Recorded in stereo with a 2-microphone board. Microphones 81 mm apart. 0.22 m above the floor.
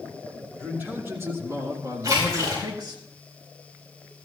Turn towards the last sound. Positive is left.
turn(degrees=-45)  # may be behind; listen again after turning